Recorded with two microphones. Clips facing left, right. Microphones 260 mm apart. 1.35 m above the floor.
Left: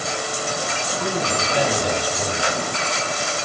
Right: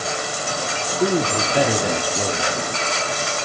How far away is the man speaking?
About 0.7 m.